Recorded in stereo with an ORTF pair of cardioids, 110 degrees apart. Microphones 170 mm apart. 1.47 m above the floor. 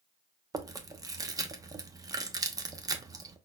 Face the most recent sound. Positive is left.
turn(degrees=-20)